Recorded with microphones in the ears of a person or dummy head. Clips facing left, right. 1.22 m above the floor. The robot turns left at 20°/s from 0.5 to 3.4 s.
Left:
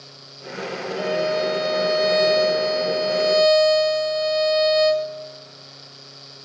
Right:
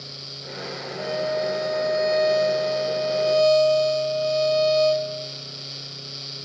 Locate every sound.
1.0 s a violin: 95° left, 0.9 m; by 5.1 s 45° left, 0.9 m